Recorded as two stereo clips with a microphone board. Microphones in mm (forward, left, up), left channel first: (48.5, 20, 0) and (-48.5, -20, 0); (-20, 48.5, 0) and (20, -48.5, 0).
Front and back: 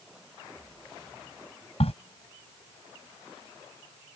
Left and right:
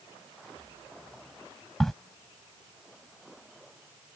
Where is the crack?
25° left.